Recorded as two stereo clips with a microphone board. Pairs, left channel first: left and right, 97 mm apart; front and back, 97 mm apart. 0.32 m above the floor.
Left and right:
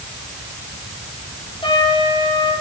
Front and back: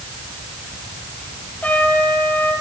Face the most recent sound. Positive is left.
turn(degrees=70)